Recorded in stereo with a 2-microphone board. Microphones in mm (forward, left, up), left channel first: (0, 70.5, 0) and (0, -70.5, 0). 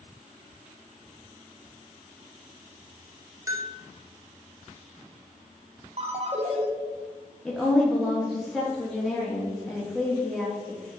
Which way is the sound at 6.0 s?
50° right (ahead or behind).